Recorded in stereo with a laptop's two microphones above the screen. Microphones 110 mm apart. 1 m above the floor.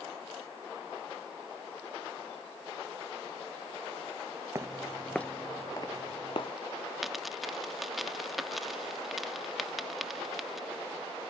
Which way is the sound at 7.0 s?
Centre (ahead or behind).